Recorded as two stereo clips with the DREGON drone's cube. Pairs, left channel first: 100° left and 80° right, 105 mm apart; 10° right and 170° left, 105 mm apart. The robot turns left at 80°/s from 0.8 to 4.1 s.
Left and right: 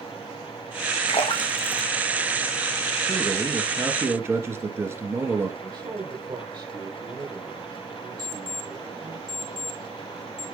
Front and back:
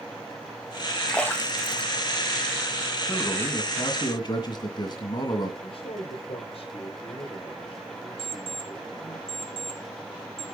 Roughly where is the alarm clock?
Ahead right.